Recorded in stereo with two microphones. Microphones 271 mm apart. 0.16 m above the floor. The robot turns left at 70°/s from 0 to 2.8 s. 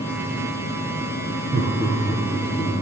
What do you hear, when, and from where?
1.5 s laughter: 30° right (ahead or behind), 2 m; by 2.7 s 35° left (ahead or behind), 2 m